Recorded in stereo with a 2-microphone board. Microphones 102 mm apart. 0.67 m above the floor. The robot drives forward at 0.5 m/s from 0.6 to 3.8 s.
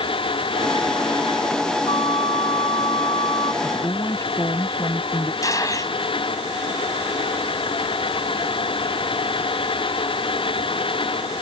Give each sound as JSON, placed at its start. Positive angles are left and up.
{"t": 1.9, "sound": "a flute", "side_deg": 65}
{"t": 3.6, "sound": "a woman speaking", "side_deg": 30}
{"t": 5.4, "sound": "a gunshot", "side_deg": 30}